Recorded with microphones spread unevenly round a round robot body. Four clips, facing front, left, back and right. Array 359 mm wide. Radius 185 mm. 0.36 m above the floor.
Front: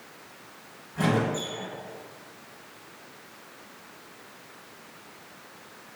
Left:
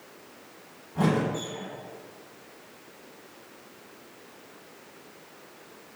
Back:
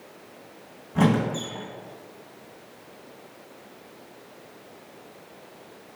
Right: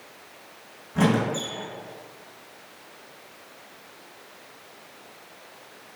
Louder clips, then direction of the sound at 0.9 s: Right 3 dB, back 3 dB; 150° right.